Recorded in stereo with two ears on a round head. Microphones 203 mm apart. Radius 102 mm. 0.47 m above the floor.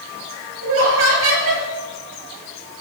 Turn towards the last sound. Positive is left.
turn(degrees=-60)  # may be behind; listen again after turning